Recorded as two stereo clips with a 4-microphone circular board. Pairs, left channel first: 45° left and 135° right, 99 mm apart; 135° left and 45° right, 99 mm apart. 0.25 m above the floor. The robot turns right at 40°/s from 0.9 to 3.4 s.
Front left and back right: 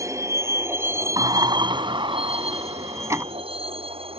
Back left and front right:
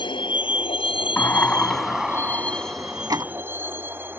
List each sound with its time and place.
0.0 s a vehicle: 165° left; by 4.2 s 115° right
1.2 s a sliding door: 165° right; by 3.2 s 80° right